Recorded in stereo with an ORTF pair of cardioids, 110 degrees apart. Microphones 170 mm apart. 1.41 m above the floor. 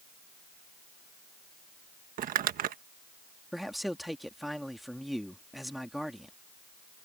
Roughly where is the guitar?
I don't hear a guitar.